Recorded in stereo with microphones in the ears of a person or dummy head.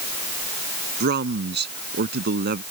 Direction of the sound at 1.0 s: 50° right (ahead or behind).